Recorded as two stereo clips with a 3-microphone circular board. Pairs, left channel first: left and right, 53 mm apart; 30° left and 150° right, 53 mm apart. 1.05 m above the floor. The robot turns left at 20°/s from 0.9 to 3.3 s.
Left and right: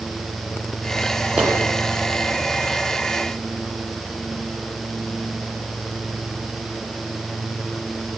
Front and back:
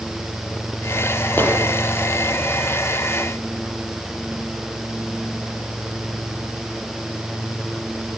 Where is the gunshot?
25° right, 8 m; by 1.6 s 30° right, 8 m.